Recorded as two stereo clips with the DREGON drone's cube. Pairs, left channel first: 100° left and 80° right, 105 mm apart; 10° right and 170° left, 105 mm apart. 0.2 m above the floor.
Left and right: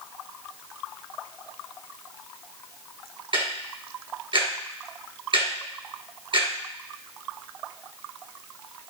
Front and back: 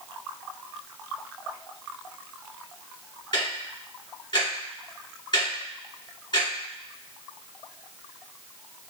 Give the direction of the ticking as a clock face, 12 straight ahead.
2 o'clock.